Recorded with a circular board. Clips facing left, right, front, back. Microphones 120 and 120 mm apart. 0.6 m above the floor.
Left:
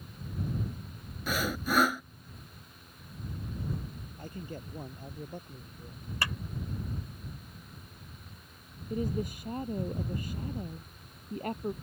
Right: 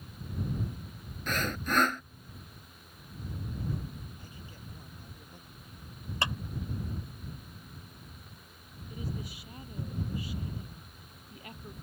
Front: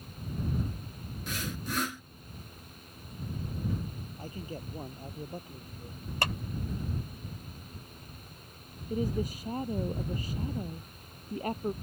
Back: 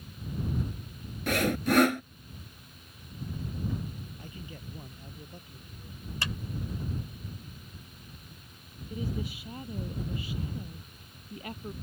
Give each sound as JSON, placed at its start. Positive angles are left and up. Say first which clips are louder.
{"t": 1.3, "sound": "sawing", "louder": "left 1 dB, back 12 dB", "azimuth_deg": 170}
{"t": 4.2, "sound": "a man speaking", "louder": "left 8 dB, front 5 dB", "azimuth_deg": 50}
{"t": 6.2, "sound": "a clap", "louder": "right 2 dB, front 5 dB", "azimuth_deg": -25}
{"t": 8.9, "sound": "a woman speaking", "louder": "left 8 dB, front 5 dB", "azimuth_deg": 50}